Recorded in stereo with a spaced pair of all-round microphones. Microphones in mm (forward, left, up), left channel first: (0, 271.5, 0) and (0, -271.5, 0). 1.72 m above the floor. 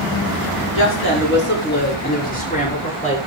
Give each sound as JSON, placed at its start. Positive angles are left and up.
{"t": 0.8, "sound": "a woman speaking", "side_deg": 25, "distance_m": 6.0}